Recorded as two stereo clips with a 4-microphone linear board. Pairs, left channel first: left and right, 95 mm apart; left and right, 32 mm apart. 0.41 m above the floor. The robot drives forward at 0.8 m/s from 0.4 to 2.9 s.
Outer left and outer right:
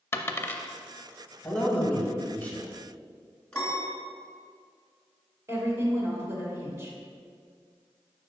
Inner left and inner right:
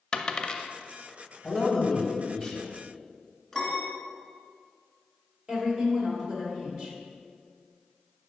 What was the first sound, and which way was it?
A dropped coin, 25° left (ahead or behind).